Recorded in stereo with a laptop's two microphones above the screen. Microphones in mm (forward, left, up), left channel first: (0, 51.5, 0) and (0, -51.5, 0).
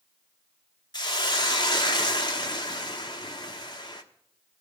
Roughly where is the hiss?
Left.